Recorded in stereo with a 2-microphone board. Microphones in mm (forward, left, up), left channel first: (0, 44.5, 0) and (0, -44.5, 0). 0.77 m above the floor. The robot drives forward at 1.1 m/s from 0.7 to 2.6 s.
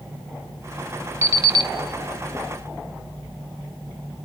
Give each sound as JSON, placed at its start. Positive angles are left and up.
{"t": 1.2, "sound": "an alarm clock", "side_deg": -30, "distance_m": 1.2}